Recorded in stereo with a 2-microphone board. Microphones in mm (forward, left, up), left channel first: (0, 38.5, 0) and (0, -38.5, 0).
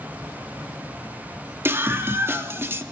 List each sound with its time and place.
1.6 s a scream: 35° right (ahead or behind), 3 m